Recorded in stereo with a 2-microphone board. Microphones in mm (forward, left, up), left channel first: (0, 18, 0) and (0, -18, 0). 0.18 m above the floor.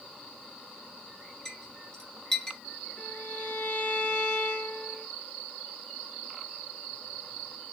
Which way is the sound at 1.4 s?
20° left (ahead or behind).